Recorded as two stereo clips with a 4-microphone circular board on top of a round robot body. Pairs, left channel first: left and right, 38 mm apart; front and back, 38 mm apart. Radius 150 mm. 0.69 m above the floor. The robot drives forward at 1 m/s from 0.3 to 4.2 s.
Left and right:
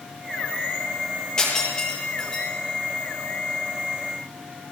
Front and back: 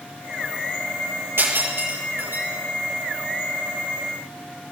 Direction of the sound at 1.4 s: 160° left.